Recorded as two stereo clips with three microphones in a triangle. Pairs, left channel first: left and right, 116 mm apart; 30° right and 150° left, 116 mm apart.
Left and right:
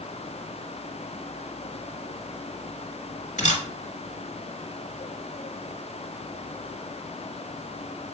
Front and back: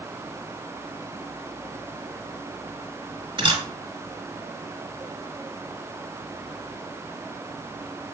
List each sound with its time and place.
3.4 s a camera shutter: 105° left, 1.0 m